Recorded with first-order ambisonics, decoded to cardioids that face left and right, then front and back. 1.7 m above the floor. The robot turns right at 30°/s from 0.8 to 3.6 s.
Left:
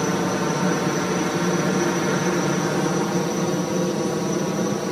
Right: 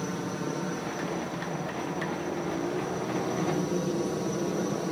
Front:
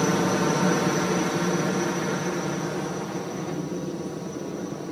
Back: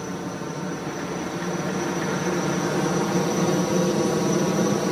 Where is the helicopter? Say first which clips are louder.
Left 11 dB, front 8 dB; 50° left; by 4.9 s 145° left.